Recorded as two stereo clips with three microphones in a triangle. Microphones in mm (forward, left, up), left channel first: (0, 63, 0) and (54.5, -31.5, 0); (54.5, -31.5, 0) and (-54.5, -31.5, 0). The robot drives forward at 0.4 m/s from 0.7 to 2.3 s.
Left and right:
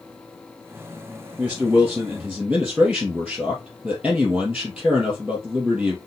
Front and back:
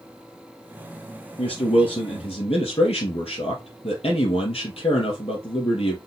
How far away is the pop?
No pop in this recording.